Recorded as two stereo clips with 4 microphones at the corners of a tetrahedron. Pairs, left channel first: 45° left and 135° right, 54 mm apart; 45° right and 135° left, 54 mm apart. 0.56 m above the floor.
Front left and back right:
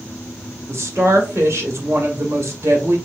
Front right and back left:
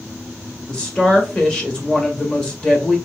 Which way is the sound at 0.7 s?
115° right.